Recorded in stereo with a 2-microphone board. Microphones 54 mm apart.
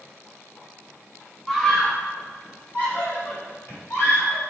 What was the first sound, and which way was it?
A scream, 5° left (ahead or behind).